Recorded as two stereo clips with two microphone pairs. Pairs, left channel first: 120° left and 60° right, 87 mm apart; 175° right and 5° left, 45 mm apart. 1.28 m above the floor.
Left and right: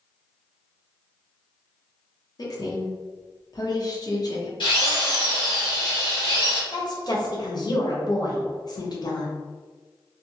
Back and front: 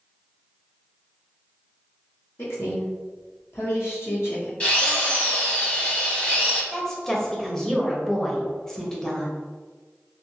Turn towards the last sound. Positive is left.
turn(degrees=105)